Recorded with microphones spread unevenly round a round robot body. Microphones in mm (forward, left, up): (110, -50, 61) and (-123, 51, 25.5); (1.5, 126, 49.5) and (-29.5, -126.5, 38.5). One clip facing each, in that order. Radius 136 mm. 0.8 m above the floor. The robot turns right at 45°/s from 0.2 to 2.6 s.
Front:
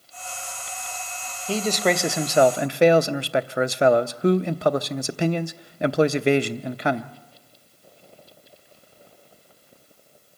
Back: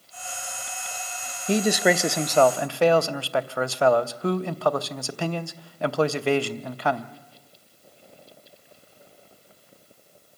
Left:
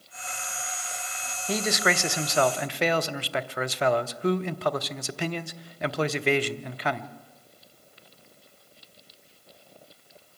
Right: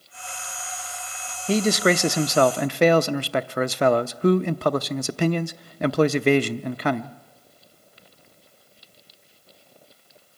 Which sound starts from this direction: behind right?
A man speaking, at 1.5 s.